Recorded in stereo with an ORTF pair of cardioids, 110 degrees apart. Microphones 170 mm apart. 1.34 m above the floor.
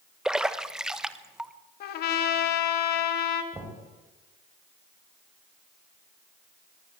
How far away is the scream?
I don't hear a scream.